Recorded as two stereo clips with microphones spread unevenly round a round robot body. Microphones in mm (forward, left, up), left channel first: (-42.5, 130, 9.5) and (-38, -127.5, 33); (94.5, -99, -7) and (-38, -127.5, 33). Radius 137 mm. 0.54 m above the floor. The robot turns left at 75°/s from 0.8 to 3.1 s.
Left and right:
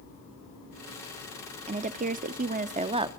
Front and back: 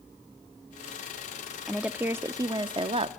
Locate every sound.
1.7 s a woman speaking: 45° right, 0.7 m; by 3.1 s 150° right, 0.7 m